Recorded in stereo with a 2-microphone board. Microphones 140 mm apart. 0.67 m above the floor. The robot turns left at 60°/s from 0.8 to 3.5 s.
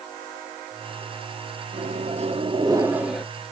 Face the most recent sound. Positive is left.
turn(degrees=165)